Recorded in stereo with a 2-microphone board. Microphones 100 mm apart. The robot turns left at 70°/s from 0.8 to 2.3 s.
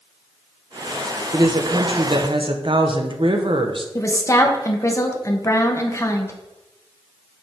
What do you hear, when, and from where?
1.3 s a woman speaking: 45° right, 0.7 m; by 3.9 s 110° right, 0.7 m
4.0 s a woman speaking: 30° left (ahead or behind), 0.8 m